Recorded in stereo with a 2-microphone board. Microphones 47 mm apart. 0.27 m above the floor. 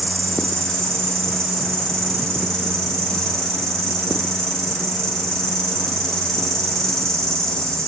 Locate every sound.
0.0 s an insect: 15° left (ahead or behind), 1.1 m